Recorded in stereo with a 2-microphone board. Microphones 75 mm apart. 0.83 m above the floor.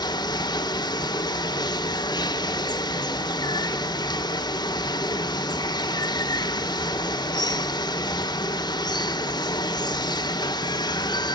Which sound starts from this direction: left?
Running water, at 0.0 s.